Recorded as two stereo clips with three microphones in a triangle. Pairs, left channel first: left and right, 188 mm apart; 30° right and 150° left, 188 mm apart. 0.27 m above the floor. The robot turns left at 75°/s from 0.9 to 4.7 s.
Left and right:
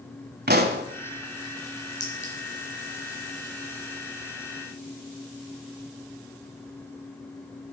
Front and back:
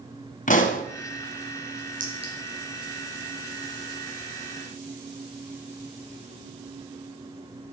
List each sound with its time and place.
0.5 s a pop: 70° right, 1.6 m
2.0 s a clink: 110° left, 4 m; by 2.3 s 85° left, 4 m